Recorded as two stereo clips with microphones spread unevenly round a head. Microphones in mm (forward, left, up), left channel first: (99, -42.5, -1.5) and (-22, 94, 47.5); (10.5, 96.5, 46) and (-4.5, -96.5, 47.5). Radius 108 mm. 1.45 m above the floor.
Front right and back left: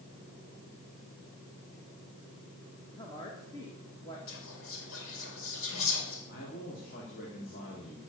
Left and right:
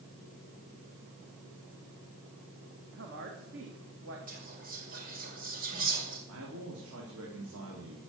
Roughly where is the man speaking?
Right.